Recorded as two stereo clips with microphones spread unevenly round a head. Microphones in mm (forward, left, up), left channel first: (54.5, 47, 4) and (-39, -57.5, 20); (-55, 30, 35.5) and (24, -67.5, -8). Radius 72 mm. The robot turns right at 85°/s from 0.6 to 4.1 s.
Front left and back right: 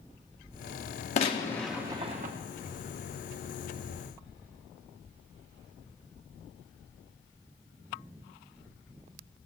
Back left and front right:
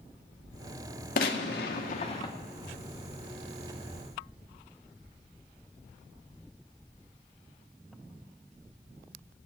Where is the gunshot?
95° left, 1.6 m; by 2.3 s 165° right, 1.6 m.